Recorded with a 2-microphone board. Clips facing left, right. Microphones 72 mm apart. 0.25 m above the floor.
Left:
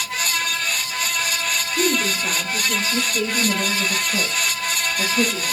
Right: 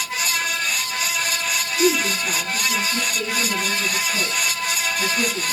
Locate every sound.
1.8 s a woman speaking: 70° left (ahead or behind), 6.5 m; by 5.5 s 80° left, 8 m